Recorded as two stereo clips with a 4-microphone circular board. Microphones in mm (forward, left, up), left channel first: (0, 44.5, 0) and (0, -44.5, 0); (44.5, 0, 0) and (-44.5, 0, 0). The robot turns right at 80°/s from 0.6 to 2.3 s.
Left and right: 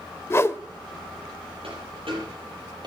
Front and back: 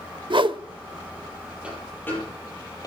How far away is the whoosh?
About 0.7 m.